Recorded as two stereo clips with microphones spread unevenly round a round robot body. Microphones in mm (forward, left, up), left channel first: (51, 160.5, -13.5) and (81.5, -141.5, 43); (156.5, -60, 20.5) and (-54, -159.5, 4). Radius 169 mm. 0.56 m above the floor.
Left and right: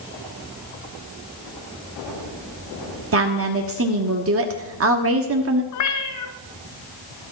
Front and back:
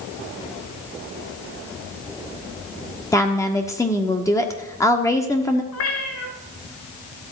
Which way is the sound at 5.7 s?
60° left.